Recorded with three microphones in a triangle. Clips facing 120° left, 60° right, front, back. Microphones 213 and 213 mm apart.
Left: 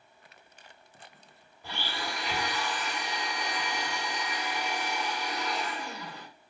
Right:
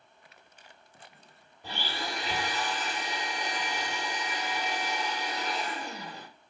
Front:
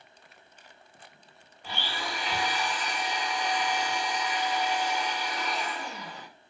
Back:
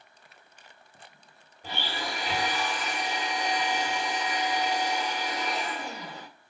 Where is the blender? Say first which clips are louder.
Right 1 dB, back 2 dB; 130° right, 1.5 m.